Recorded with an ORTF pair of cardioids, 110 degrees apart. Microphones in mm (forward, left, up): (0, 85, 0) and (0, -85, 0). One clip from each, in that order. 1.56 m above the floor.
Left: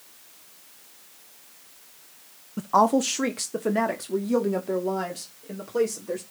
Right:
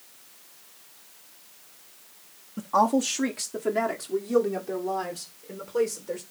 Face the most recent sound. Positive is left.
turn(degrees=15)